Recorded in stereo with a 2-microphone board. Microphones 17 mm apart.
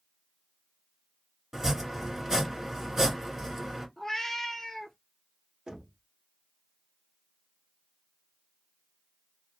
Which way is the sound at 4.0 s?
20° left (ahead or behind).